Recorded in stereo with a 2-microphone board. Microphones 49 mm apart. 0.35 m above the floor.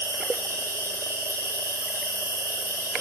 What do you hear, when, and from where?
0.0 s an insect: 75° right (ahead or behind), 2.0 m